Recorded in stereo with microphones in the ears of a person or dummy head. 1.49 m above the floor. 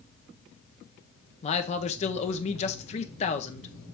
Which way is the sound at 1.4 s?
35° left (ahead or behind).